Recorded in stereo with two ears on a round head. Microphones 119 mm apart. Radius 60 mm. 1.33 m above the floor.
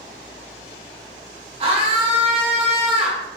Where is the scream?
45° right (ahead or behind), 2 m.